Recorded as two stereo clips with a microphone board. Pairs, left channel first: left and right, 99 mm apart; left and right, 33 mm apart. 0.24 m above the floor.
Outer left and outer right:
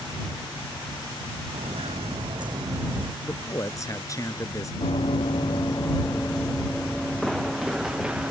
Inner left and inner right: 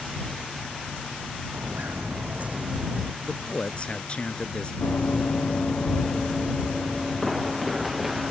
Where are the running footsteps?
70° left (ahead or behind); by 8.3 s 10° right (ahead or behind).